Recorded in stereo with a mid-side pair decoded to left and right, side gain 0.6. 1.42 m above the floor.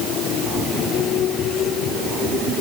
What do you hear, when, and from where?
Only background noise.